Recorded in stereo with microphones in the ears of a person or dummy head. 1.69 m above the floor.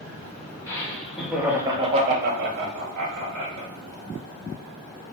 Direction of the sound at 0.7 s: 15° left (ahead or behind).